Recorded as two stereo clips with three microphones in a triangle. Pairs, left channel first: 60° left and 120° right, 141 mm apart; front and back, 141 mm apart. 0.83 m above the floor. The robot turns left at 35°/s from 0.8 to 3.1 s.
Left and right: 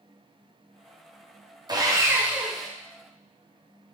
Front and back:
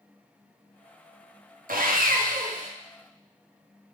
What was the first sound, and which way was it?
Sawing, 175° right.